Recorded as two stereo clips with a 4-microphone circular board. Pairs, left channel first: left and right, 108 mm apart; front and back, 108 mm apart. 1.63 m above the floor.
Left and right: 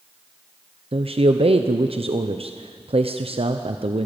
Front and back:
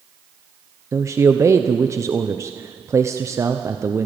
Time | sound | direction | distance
0.9 | a man speaking | 120° right | 0.8 m